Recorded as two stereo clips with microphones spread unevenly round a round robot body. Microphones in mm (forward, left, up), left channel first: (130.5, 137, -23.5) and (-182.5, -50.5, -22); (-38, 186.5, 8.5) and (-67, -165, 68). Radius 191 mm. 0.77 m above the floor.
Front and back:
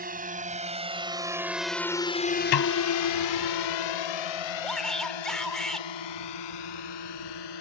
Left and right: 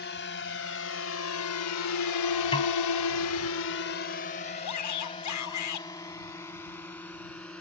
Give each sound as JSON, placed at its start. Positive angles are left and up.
{"t": 0.0, "sound": "a drone", "azimuth_deg": 145}
{"t": 2.5, "sound": "a snare drum", "azimuth_deg": 5}
{"t": 4.6, "sound": "a shout", "azimuth_deg": 120}